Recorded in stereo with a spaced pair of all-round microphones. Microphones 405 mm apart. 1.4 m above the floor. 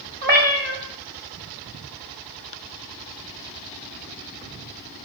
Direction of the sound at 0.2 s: 25° right (ahead or behind).